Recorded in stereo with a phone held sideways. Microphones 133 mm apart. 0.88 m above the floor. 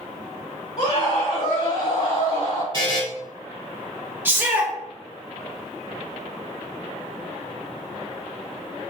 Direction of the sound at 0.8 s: 55° left (ahead or behind).